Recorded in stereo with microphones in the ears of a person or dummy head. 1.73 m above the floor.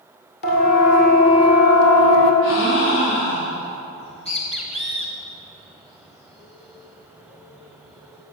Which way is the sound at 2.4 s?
70° left (ahead or behind).